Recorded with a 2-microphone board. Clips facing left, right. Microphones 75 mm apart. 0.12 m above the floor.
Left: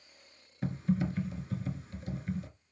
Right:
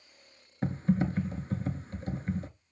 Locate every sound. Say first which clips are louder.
0.6 s typing on a keyboard: right 3 dB; 40° right (ahead or behind), 0.6 m